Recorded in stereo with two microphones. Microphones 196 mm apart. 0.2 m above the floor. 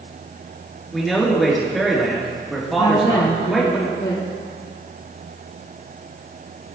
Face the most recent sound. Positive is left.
turn(degrees=35)  # may be behind; listen again after turning